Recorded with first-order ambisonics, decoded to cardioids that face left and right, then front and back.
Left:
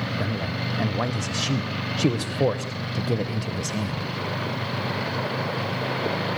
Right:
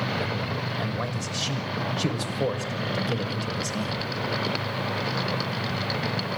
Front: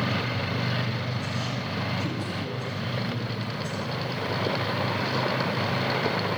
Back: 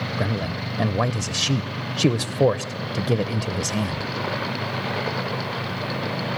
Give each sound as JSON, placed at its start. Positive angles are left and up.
{"t": 0.2, "sound": "a man speaking", "azimuth_deg": 160, "distance_m": 0.8}